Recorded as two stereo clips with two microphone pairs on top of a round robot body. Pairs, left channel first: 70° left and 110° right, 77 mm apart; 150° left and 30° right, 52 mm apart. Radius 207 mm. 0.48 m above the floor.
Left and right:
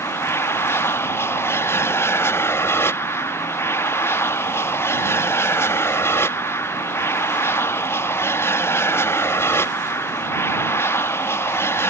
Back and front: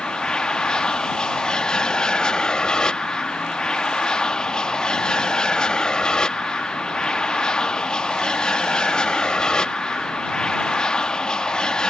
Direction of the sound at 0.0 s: 95° left.